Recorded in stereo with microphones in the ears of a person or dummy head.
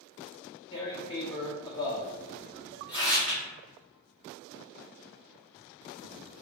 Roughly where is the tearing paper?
Left.